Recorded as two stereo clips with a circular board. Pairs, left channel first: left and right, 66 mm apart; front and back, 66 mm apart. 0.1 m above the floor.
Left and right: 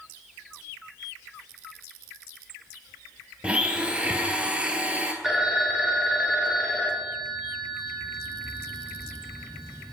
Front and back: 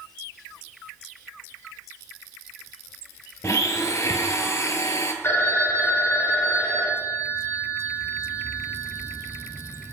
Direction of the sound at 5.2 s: 10° right.